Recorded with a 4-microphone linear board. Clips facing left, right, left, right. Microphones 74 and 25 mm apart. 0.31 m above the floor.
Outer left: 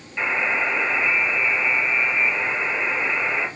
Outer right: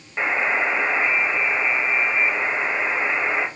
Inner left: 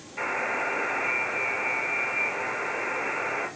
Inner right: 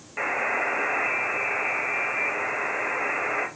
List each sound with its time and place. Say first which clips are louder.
0.2 s a buzzer: outer right 1 dB, inner right 2 dB; 30° right (ahead or behind), 1.1 m